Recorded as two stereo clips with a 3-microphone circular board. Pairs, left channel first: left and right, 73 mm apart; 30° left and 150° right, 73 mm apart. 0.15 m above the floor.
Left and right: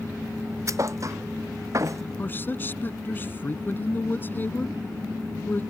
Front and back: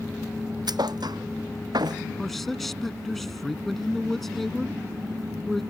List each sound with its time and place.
0.7 s a thud: 130° right
2.2 s a man speaking: 115° left